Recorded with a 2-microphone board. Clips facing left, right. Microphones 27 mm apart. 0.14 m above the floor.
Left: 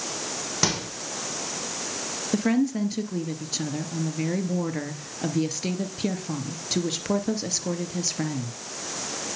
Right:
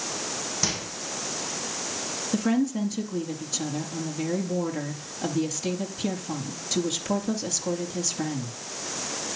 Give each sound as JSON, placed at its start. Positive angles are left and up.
{"t": 0.6, "sound": "a microwave", "side_deg": 50, "distance_m": 5.5}
{"t": 2.3, "sound": "a woman speaking", "side_deg": 25, "distance_m": 3.0}